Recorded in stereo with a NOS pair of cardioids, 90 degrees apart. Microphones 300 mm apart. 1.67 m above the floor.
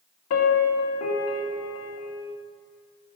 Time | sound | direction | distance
0.3 | a piano | 65° left | 2 m